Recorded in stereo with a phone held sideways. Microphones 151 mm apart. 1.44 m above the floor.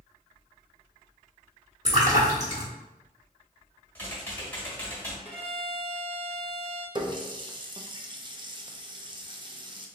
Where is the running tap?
30° right (ahead or behind), 0.6 m.